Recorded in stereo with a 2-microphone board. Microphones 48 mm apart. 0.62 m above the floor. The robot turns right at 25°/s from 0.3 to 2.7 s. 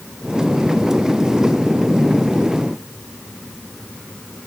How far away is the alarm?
I don't hear an alarm.